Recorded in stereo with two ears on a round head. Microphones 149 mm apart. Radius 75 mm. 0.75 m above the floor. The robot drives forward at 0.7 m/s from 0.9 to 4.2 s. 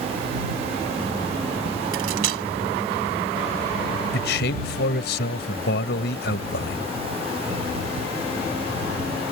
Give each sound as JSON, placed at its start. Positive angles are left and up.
{"t": 1.9, "sound": "cutlery clinking", "side_deg": -80}
{"t": 4.1, "sound": "a man speaking", "side_deg": 75}